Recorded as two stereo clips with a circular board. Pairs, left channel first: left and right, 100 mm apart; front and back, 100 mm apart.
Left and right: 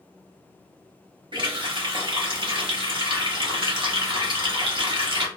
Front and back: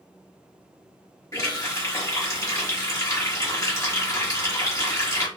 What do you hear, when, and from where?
1.3 s a running tap: 55° right, 1.0 m